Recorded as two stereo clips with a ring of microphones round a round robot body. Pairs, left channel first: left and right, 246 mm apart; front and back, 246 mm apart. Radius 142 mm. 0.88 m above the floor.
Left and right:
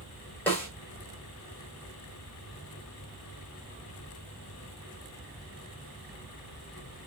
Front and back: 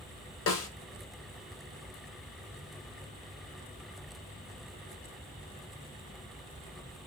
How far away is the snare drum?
About 0.9 m.